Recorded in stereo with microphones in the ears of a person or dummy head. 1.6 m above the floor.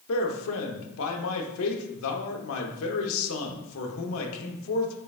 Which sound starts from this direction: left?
A man speaking, at 0.1 s.